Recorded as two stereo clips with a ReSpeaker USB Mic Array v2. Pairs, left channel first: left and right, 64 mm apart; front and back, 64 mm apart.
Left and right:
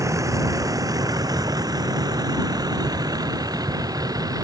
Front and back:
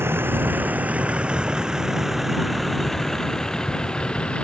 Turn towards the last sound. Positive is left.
turn(degrees=-70)